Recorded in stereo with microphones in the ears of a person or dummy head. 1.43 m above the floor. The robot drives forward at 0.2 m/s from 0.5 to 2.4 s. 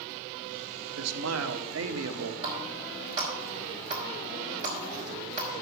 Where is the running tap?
40° right (ahead or behind), 4 m.